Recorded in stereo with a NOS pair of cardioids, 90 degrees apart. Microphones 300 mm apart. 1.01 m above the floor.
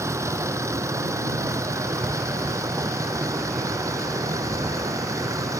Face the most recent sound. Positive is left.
turn(degrees=-10)